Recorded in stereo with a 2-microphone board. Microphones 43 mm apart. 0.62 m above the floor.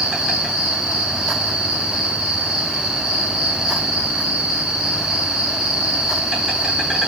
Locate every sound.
0.0 s an insect: 15° right (ahead or behind), 7 m